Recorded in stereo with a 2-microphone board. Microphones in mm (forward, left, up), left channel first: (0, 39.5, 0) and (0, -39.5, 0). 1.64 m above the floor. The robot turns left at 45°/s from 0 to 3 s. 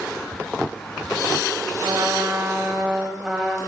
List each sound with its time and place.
1.8 s a trumpet: 120° right, 3 m; by 3.6 s 170° right, 3 m